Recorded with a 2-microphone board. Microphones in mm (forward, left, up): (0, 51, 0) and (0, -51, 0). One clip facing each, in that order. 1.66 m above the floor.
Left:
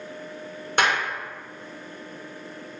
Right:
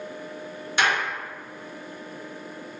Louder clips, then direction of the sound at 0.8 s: Left 1 dB; 45° left (ahead or behind).